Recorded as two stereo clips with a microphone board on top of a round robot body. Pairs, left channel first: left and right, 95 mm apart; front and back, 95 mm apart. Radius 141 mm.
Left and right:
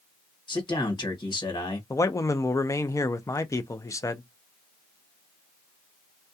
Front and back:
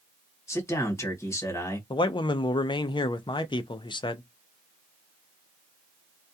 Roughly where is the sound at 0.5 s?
Ahead left.